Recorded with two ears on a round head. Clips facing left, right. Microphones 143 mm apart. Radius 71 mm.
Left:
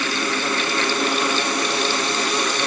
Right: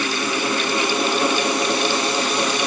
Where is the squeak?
I don't hear a squeak.